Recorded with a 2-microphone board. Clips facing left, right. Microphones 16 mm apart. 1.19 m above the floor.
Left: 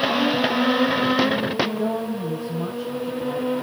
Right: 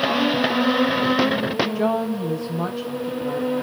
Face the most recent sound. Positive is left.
turn(degrees=-80)